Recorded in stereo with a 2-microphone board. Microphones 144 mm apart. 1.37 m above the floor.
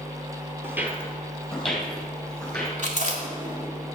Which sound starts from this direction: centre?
Footsteps, at 0.6 s.